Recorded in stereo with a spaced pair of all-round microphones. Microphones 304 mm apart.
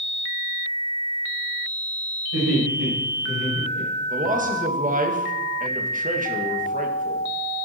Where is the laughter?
60° right (ahead or behind), 6.5 m; by 4.3 s 55° right (ahead or behind), 5.5 m.